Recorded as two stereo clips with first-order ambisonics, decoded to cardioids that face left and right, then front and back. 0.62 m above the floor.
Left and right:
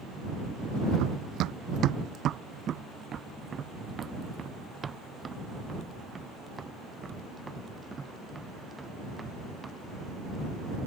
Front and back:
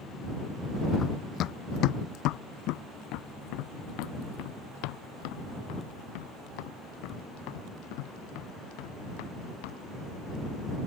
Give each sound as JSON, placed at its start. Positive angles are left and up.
{"t": 1.0, "sound": "running footsteps", "azimuth_deg": -60}